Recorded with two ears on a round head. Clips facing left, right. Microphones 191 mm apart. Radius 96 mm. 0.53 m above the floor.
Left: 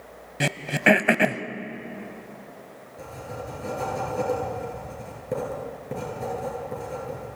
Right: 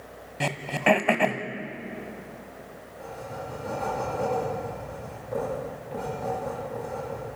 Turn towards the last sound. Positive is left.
turn(degrees=60)  # may be behind; listen again after turning